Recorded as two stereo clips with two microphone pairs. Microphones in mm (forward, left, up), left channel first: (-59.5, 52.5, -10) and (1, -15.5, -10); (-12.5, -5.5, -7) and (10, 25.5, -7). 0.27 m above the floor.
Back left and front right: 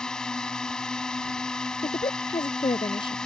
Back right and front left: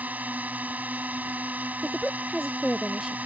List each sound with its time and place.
0.0 s a drone: 55° left
1.8 s a woman speaking: 135° left